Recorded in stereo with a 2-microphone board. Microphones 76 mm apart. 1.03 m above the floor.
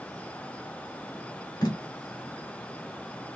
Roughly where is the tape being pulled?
Left.